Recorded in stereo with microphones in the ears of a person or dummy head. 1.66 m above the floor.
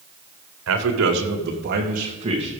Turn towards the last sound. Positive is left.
turn(degrees=-30)  # may be behind; listen again after turning